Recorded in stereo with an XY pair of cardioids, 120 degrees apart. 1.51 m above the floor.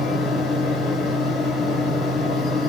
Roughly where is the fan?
Ahead left.